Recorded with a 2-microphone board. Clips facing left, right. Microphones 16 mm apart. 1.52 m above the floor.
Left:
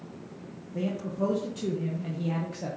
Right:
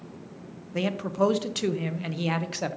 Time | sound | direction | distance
0.7 | a man speaking | 80° right | 1.1 m